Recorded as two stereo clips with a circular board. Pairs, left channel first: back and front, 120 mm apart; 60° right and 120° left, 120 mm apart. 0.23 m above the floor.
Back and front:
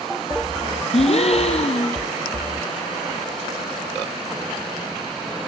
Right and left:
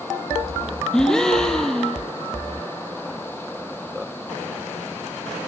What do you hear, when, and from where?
0.9 s a gasp: 145° right, 1.4 m